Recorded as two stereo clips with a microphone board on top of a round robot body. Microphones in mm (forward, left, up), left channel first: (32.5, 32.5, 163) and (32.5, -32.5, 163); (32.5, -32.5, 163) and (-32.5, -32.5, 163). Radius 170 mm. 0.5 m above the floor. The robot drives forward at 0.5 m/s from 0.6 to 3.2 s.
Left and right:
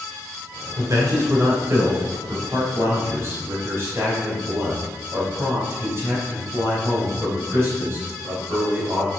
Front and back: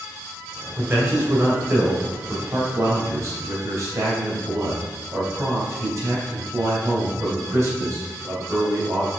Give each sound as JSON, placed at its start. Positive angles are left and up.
{"t": 0.8, "sound": "a man speaking", "azimuth_deg": -120, "distance_m": 3.0}